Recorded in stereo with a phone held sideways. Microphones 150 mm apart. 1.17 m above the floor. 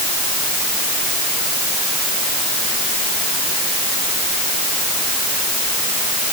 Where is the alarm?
No alarm in this recording.